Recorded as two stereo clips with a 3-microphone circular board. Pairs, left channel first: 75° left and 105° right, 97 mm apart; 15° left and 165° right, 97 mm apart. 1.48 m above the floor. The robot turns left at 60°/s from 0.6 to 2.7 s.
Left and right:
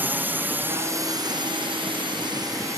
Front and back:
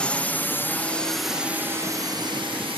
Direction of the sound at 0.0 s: 55° right.